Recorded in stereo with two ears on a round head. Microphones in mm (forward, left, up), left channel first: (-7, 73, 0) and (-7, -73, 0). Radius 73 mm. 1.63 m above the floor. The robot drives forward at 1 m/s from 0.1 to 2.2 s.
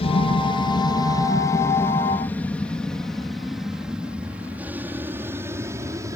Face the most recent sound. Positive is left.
turn(degrees=-20)  # may be behind; listen again after turning